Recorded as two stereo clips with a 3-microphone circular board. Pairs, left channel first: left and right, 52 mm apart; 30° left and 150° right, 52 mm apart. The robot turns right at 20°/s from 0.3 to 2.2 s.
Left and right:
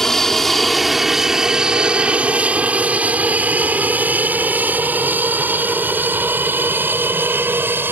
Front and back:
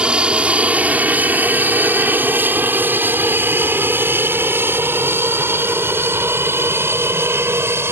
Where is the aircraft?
165° left; by 7.9 s 130° right.